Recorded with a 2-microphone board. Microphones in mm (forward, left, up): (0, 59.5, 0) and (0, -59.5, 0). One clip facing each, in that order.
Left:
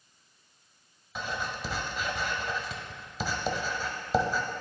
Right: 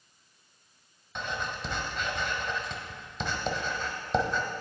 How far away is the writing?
About 0.8 m.